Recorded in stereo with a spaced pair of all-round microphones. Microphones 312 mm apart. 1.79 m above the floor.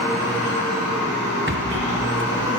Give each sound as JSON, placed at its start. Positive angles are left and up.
{"t": 0.0, "sound": "a machine running", "side_deg": 60, "distance_m": 5.5}
{"t": 1.5, "sound": "a rattle", "side_deg": -40, "distance_m": 0.9}